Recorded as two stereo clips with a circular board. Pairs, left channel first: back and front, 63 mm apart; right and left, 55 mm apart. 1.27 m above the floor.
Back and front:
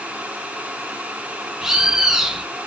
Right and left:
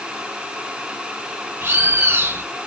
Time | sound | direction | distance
1.6 | a bird | 80° left | 0.6 m